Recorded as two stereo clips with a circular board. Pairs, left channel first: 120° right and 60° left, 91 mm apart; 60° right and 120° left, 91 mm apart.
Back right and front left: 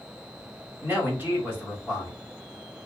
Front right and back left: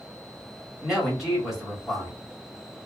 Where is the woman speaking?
35° left, 1.6 m.